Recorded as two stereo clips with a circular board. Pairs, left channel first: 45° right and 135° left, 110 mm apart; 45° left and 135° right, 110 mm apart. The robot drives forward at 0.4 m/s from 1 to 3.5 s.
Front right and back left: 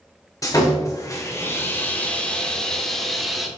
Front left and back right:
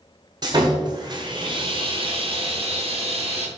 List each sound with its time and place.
0.4 s sawing: 95° right, 1.3 m; by 3.5 s 140° right, 1.7 m